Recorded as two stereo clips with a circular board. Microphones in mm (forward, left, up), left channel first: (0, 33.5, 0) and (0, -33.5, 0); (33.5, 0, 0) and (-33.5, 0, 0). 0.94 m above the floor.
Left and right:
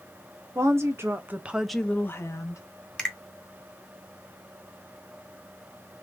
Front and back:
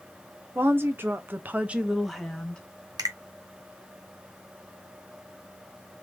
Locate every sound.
0.6 s a woman speaking: 125° right, 1.6 m; by 2.6 s 75° left, 1.2 m
3.0 s a finger snap: 170° left, 2.0 m